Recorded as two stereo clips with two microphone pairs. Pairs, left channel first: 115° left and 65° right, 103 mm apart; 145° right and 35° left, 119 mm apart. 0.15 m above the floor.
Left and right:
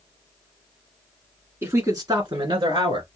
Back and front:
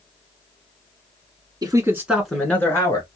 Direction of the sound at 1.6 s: 5° right.